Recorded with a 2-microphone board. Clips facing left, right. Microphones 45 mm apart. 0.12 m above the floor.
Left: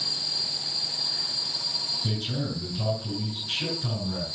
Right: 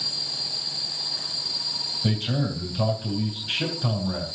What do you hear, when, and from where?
2.0 s a man speaking: 55° right (ahead or behind), 3 m